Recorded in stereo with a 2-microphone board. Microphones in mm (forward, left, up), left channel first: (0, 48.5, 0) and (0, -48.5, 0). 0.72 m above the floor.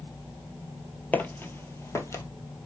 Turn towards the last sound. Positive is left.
turn(degrees=30)  # may be behind; listen again after turning